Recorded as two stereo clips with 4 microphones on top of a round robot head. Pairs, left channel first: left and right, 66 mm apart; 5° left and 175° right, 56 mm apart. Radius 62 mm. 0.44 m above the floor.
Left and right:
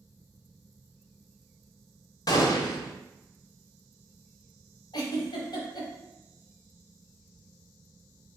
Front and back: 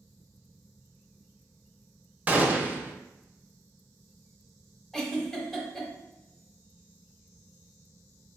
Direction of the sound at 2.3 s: 120° left.